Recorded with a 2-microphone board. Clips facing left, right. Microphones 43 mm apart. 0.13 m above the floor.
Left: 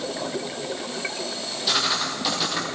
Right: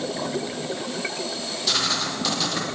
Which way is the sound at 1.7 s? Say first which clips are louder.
Left 1 dB; 5° left (ahead or behind).